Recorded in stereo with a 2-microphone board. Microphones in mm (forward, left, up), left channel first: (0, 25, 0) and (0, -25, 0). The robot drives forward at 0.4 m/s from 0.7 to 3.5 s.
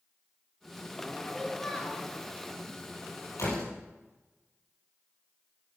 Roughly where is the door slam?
Left.